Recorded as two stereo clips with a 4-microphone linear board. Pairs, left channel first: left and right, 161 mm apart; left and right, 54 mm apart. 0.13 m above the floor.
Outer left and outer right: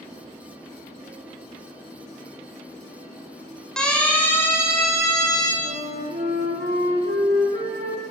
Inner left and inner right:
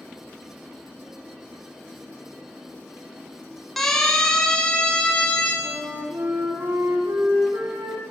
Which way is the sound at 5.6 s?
70° right (ahead or behind).